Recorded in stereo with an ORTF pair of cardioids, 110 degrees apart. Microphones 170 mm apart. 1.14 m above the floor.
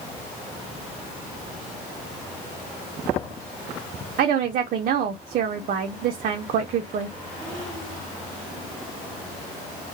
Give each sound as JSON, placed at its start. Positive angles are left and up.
{"t": 4.2, "sound": "a woman speaking", "azimuth_deg": -60, "distance_m": 0.6}